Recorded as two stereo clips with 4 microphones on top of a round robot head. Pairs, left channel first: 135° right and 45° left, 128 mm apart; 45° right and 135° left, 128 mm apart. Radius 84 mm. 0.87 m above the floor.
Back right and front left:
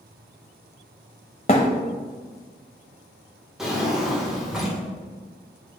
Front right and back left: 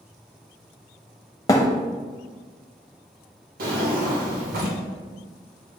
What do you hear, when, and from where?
1.5 s a thud: 105° right, 0.8 m
3.6 s a drawer: 135° left, 1.6 m